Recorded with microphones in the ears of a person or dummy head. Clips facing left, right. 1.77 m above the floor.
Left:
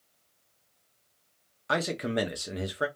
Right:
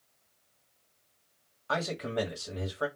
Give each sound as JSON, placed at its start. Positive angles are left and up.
{"t": 1.7, "sound": "a man speaking", "side_deg": 30, "distance_m": 0.8}